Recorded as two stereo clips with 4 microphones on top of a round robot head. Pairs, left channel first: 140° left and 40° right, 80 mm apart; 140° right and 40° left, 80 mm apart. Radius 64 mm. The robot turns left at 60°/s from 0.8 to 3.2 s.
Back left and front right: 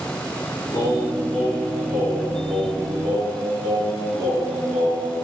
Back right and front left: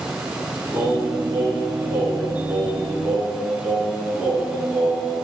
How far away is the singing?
About 3.5 m.